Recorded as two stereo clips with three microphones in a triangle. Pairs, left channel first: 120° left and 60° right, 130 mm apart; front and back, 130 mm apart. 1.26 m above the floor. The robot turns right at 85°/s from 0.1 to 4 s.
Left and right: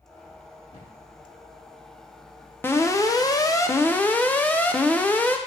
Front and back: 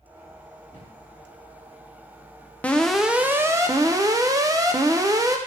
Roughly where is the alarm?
Left.